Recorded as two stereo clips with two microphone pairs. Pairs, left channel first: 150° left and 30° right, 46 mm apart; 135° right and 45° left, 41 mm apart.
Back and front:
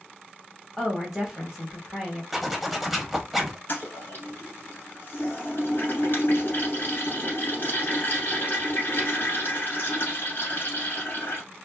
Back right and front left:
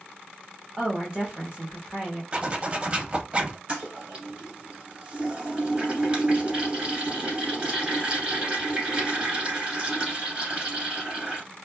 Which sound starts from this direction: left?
A toilet flushing, at 3.7 s.